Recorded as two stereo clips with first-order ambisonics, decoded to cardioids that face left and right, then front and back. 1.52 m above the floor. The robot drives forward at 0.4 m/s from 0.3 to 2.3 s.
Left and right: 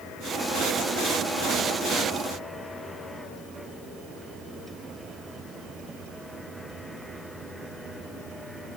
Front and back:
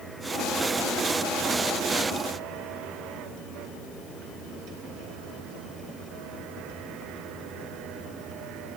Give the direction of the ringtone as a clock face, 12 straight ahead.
I don't hear a ringtone.